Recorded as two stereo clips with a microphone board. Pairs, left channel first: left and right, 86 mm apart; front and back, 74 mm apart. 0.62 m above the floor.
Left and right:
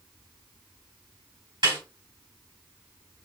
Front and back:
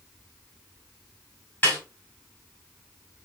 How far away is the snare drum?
About 3 m.